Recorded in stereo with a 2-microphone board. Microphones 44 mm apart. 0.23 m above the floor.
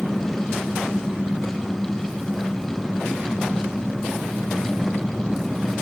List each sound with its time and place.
0.0 s an engine running: 10° right (ahead or behind)